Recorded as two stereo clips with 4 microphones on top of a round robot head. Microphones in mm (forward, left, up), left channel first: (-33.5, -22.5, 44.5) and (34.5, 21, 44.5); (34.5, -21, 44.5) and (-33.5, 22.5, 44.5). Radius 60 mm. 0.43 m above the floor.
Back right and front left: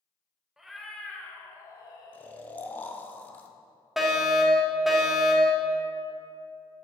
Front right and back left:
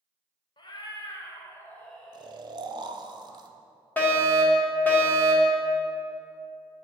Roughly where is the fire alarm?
Ahead right.